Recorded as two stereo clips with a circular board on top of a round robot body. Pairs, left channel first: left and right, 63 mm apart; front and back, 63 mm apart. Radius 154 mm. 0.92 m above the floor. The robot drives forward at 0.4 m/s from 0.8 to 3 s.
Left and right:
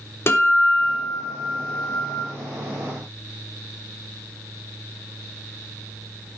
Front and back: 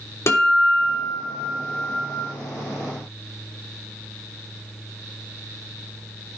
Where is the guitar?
45° left, 3 m; by 2.2 s 50° left, 2.5 m.